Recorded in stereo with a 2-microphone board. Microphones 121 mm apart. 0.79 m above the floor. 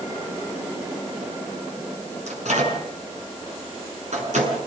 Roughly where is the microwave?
Right.